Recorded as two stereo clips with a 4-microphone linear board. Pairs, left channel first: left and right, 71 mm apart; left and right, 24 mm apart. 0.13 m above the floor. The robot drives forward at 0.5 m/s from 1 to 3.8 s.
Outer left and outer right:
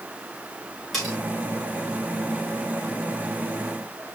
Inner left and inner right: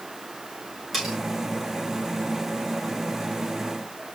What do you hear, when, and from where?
0.9 s cutlery clinking: centre (ahead or behind), 6.5 m